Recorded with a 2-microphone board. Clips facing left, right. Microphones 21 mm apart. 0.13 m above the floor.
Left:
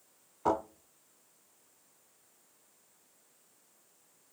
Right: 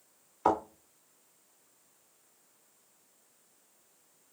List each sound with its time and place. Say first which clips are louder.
0.5 s a thud: right 3 dB; 75° right (ahead or behind), 4 m